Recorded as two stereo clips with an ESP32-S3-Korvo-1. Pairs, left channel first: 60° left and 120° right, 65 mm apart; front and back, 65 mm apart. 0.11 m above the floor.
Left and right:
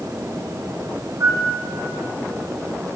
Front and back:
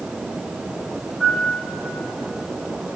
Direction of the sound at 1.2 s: 80° right.